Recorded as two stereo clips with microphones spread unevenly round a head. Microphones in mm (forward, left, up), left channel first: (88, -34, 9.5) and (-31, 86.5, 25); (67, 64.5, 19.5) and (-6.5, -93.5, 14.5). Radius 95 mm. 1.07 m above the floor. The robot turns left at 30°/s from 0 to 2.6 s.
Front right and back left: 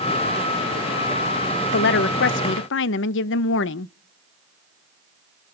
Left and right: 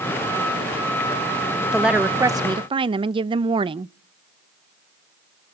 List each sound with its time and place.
1.7 s a woman speaking: 25° right, 0.5 m; by 3.9 s 50° right, 0.5 m